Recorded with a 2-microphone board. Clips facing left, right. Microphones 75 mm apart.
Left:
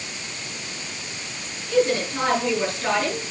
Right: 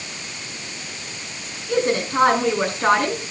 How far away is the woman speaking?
About 6 m.